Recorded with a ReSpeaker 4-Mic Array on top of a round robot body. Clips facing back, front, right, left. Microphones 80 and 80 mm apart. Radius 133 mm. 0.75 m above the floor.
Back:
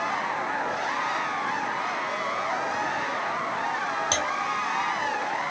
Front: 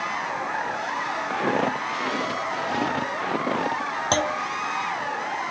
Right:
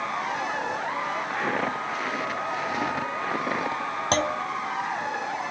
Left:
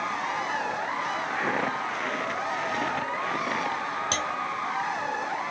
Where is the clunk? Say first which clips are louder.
Front 4 dB, right 5 dB; 45° right.